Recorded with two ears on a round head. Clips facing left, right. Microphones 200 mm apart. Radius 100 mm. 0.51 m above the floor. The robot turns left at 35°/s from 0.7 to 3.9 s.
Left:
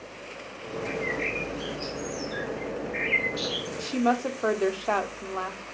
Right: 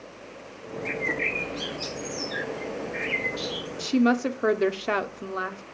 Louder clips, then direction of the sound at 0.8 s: Even; 95° right.